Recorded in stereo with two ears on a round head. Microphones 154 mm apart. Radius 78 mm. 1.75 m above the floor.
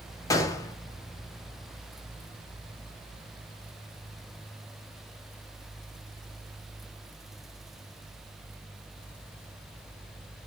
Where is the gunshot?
20° left (ahead or behind), 0.7 m.